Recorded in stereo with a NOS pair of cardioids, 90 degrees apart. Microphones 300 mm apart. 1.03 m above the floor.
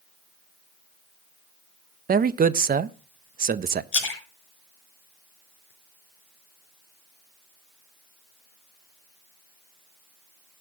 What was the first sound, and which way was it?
A man speaking, 30° right.